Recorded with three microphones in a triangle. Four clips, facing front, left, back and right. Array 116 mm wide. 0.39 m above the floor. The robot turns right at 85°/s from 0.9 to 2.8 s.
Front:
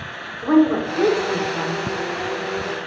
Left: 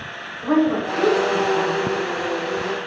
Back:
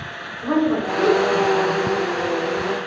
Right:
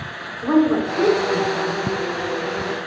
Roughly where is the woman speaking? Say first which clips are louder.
Right 2 dB, front 3 dB; ahead right.